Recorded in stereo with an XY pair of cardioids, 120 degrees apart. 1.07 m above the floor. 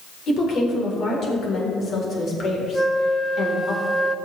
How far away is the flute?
About 0.7 m.